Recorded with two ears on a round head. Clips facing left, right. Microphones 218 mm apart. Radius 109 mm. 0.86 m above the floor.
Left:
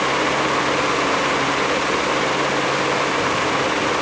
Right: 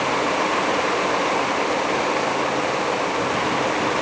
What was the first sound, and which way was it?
Only background noise.